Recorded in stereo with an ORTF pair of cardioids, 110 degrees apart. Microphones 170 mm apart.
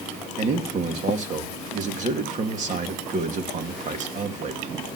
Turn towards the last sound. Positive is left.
turn(degrees=-45)